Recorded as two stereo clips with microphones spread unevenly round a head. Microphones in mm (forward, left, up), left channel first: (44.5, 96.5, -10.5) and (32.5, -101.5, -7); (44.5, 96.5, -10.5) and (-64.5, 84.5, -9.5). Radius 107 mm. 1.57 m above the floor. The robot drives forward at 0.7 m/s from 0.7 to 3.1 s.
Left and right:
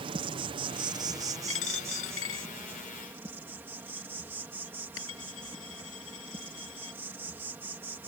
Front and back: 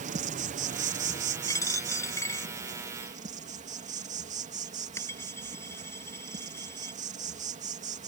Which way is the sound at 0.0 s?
165° right.